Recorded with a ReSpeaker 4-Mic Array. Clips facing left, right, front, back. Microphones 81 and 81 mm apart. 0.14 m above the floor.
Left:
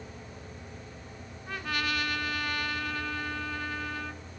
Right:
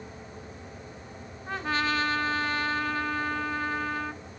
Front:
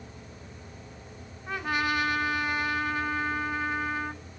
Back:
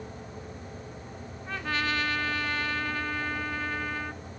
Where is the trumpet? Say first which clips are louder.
Right 5 dB, front 2 dB; 60° right, 1.3 m.